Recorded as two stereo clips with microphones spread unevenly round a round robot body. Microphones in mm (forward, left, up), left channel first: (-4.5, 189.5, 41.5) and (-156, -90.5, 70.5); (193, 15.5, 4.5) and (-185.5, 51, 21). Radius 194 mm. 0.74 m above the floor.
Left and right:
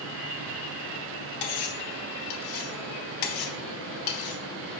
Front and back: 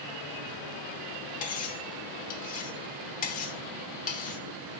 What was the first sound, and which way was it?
Cutlery clinking, 65° left.